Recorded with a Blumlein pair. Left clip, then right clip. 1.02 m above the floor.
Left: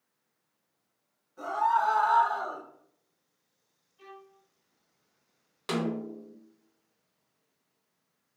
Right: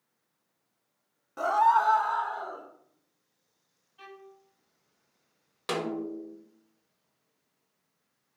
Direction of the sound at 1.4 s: 40° right.